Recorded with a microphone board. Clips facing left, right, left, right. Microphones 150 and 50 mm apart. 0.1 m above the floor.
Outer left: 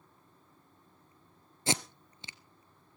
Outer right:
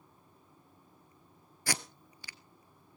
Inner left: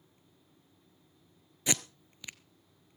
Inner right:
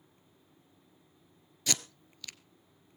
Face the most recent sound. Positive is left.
turn(degrees=25)  # may be behind; listen again after turning